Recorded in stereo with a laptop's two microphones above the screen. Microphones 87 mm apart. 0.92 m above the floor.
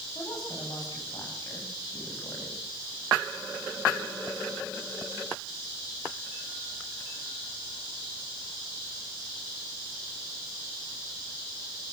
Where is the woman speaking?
50° left (ahead or behind), 7 m; by 2.6 s 40° left (ahead or behind), 6 m.